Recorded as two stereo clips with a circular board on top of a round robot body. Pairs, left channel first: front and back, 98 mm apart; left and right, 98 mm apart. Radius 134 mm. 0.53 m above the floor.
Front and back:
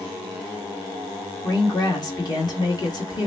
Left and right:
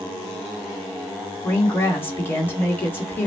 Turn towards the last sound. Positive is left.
turn(degrees=30)